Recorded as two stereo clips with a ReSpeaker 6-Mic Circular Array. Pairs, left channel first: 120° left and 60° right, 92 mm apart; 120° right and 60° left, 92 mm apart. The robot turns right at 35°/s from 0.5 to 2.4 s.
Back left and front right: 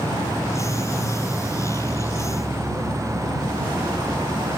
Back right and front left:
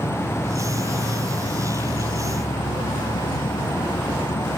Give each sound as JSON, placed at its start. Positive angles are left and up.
{"t": 0.0, "sound": "an insect", "azimuth_deg": 180}